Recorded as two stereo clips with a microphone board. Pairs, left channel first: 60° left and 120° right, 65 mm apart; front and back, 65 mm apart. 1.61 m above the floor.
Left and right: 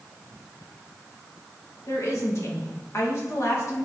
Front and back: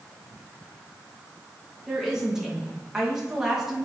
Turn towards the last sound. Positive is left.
turn(degrees=100)